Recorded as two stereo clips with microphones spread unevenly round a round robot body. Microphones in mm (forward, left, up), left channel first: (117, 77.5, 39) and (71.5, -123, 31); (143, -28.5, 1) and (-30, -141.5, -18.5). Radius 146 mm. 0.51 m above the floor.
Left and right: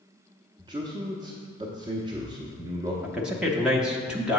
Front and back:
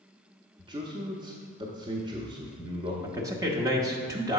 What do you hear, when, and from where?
0.6 s a man speaking: 135° right, 0.7 m
3.0 s a man speaking: straight behind, 0.6 m